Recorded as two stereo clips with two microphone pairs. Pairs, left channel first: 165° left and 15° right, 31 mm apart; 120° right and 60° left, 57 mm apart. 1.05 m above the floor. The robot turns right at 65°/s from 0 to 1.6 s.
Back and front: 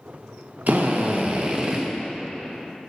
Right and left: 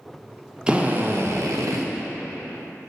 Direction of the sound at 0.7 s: 15° right.